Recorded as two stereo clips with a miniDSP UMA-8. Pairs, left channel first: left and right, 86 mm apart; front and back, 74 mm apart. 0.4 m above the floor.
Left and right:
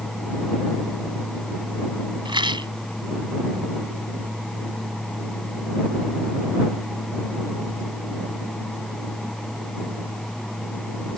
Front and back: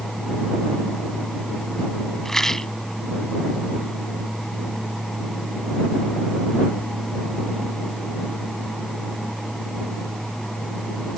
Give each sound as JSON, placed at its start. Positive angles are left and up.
{"t": 2.2, "sound": "a rattle", "azimuth_deg": -85}